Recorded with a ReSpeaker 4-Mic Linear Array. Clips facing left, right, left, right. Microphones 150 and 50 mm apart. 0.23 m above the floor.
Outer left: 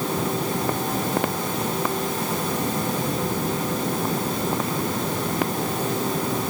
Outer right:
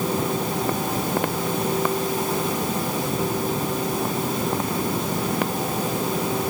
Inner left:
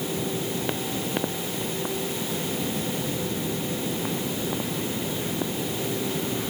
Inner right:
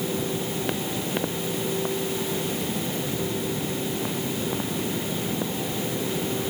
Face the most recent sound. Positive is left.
No sound to turn to.